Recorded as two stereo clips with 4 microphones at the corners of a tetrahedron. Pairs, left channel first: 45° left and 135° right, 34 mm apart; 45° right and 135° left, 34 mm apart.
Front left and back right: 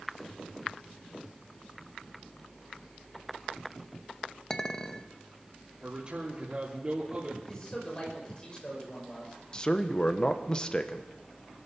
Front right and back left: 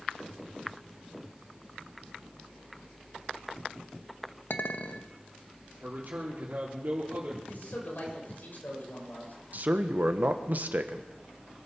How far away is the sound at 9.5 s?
About 1.2 m.